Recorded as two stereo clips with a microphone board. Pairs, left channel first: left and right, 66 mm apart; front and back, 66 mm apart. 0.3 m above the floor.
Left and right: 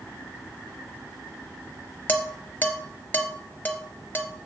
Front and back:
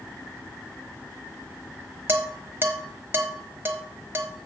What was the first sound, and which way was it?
Dishes clattering, 140° left.